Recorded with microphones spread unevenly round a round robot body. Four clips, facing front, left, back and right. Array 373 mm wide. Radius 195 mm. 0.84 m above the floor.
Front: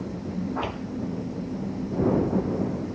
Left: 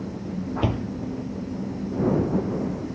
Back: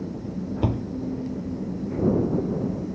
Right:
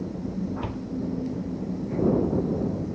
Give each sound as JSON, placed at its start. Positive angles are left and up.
{"t": 0.6, "sound": "a door slam", "azimuth_deg": 140}